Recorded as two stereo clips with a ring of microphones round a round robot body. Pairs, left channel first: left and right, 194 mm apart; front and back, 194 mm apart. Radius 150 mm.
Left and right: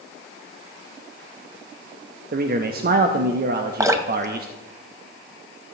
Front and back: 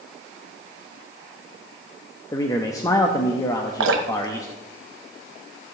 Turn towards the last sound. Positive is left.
turn(degrees=-165)